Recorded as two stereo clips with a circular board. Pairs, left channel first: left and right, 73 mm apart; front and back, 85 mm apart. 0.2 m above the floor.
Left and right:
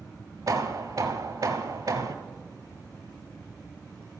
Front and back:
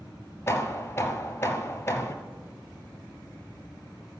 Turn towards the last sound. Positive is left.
turn(degrees=-60)